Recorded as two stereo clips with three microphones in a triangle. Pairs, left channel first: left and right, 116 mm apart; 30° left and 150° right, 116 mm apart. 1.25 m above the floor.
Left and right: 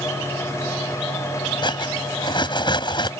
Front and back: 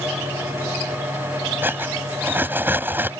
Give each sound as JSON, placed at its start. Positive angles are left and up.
{"t": 1.6, "sound": "cutlery clinking", "azimuth_deg": 140}